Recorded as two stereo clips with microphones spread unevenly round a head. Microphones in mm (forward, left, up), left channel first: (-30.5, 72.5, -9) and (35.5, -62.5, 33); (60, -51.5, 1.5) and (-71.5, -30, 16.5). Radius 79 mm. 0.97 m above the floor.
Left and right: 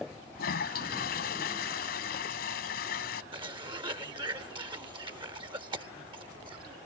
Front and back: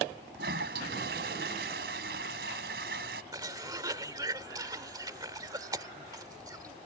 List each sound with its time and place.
0.3 s a toilet flushing: 150° left
3.3 s a cough: 125° right